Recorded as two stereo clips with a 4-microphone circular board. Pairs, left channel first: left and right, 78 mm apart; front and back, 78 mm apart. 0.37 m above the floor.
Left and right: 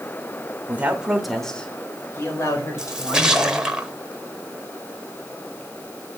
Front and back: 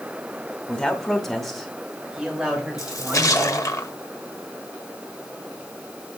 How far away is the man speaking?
About 1.2 m.